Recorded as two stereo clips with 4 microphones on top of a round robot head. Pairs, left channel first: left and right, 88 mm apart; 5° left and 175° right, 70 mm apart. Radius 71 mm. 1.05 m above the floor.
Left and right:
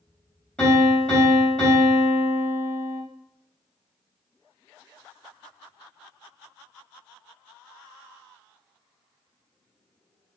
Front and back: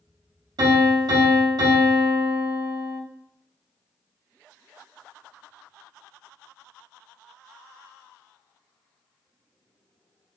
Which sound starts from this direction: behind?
A piano, at 0.6 s.